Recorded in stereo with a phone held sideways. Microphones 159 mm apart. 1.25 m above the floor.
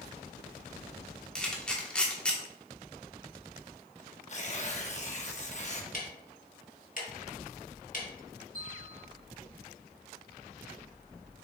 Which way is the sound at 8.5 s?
65° right (ahead or behind).